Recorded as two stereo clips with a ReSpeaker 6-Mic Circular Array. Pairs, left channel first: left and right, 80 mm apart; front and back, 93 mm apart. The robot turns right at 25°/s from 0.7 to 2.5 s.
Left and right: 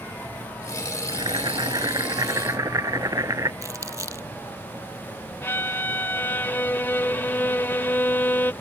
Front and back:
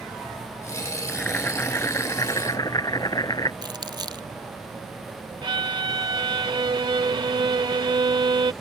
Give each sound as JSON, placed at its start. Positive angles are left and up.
{"t": 1.1, "sound": "boiling", "azimuth_deg": -80}
{"t": 3.6, "sound": "crumpling", "azimuth_deg": -140}
{"t": 5.4, "sound": "a violin", "azimuth_deg": 150}